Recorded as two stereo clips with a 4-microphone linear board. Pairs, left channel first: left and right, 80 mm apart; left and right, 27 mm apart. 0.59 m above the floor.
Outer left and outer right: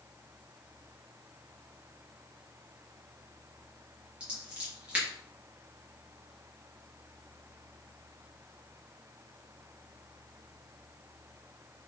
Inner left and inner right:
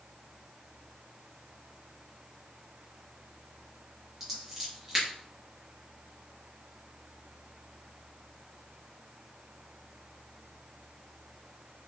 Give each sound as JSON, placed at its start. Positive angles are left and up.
{"t": 4.2, "sound": "scissors", "side_deg": -15, "distance_m": 4.0}